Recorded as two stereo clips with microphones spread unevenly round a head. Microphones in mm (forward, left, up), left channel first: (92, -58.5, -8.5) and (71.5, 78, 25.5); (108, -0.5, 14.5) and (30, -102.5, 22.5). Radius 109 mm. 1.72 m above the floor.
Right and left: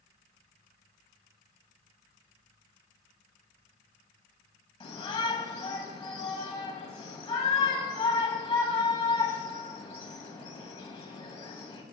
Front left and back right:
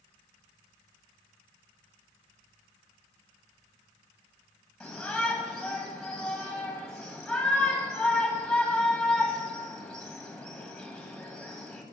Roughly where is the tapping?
I don't hear tapping.